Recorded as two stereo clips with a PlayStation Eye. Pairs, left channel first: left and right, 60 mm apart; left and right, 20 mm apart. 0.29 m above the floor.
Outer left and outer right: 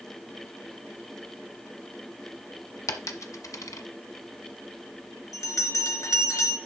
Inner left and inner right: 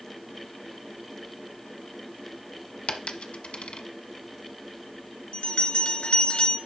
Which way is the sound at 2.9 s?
65° left (ahead or behind).